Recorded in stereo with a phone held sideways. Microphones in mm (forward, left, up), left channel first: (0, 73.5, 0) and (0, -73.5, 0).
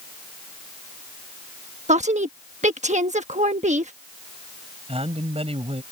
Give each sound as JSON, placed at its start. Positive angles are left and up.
{"t": 1.9, "sound": "a woman speaking", "side_deg": -55}
{"t": 4.9, "sound": "a man speaking", "side_deg": -45}